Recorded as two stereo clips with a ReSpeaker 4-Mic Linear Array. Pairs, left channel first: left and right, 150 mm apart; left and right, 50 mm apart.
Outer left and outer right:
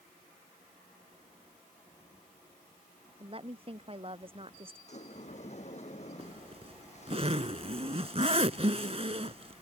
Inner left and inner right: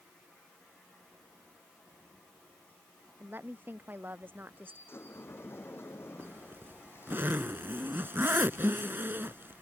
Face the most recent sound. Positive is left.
turn(degrees=-40)  # may be behind; listen again after turning